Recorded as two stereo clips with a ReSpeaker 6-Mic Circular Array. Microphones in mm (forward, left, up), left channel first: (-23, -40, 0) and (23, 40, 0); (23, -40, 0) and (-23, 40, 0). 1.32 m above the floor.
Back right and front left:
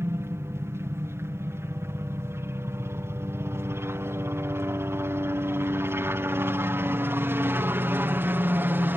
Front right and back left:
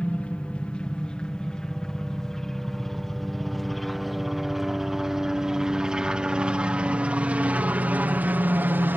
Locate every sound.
0.0 s a helicopter: 10° left; by 9.0 s 90° left